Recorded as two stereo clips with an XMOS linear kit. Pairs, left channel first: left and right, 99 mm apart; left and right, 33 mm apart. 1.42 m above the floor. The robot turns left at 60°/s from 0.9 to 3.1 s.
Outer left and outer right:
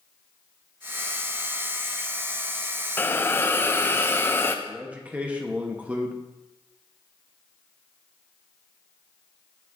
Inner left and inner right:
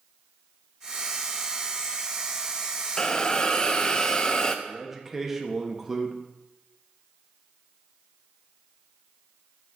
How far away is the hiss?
About 0.5 m.